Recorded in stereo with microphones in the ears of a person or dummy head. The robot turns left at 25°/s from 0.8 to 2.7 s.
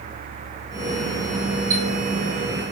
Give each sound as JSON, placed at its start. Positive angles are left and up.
{"t": 1.7, "sound": "a chime", "side_deg": -55, "distance_m": 1.1}